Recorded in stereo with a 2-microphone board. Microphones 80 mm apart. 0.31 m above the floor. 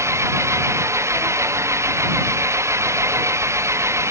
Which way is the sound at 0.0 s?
35° right (ahead or behind).